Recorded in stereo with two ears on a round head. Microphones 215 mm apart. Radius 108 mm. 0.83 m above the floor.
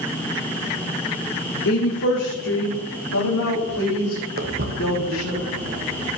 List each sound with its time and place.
1.6 s a woman speaking: 55° left (ahead or behind), 2.5 m; by 5.4 s 75° left (ahead or behind), 6 m
4.4 s footsteps: 40° right (ahead or behind), 2 m; by 6.1 s 35° right (ahead or behind), 3 m